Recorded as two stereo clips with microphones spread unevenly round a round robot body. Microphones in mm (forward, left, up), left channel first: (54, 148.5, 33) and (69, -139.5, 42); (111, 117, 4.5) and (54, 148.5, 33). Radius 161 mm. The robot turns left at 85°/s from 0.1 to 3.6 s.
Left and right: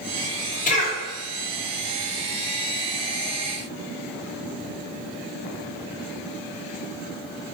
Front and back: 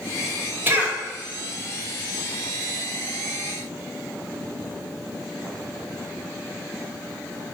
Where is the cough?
75° left, 1.1 m; by 1.0 s 45° left, 1.1 m.